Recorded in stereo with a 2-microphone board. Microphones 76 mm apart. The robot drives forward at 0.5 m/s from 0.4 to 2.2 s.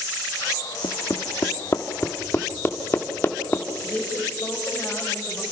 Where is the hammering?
55° left (ahead or behind), 0.9 m; by 3.6 s 30° left (ahead or behind), 1.4 m.